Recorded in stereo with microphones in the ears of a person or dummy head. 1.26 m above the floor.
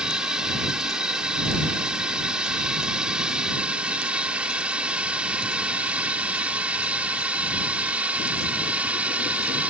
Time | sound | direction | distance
0.0 | a drone | 5° right (ahead or behind) | ?